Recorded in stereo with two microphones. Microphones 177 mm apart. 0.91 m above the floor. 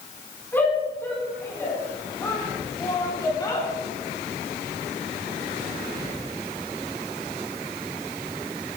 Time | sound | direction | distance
0.5 | a shout | 10° left (ahead or behind) | 7.5 m